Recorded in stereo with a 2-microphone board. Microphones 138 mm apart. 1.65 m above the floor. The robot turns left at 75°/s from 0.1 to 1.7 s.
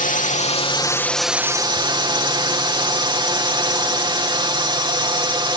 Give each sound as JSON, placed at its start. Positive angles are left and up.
{"t": 0.0, "sound": "a drone", "azimuth_deg": 85}